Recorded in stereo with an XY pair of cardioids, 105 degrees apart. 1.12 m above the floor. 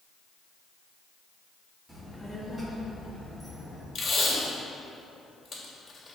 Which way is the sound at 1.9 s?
10° right.